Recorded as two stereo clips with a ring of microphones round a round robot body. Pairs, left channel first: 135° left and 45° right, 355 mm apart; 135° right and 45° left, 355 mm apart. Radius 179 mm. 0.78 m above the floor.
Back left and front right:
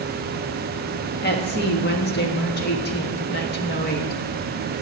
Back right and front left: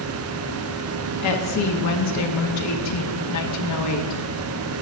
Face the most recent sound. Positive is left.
turn(degrees=-165)